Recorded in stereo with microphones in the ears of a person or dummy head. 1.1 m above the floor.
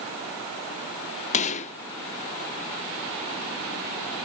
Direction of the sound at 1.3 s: 35° left (ahead or behind).